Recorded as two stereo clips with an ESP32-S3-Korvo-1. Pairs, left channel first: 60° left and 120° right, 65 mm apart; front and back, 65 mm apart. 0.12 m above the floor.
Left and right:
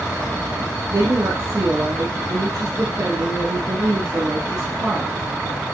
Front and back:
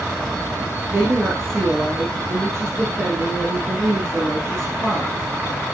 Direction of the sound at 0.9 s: 135° right.